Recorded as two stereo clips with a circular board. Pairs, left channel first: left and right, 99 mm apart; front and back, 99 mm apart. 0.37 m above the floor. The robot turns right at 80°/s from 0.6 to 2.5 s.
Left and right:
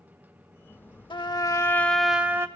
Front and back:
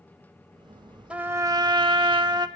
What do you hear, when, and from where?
1.1 s a trumpet: 105° left, 0.6 m; by 2.5 s 145° right, 0.6 m